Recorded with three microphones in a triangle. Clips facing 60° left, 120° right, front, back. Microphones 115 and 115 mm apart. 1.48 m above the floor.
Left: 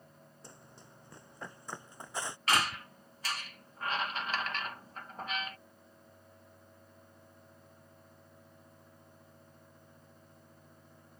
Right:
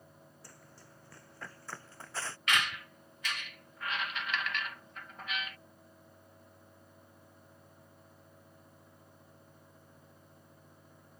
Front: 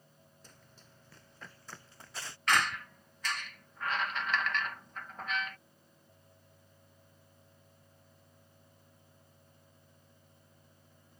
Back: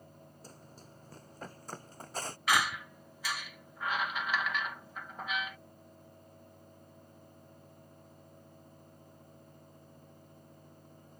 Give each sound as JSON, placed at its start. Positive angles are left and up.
{"t": 0.4, "sound": "running footsteps", "azimuth_deg": 125}
{"t": 2.5, "sound": "a squeak", "azimuth_deg": 100}